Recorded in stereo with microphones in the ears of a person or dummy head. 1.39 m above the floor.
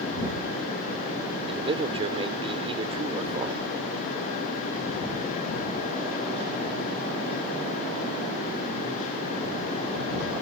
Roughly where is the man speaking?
Right.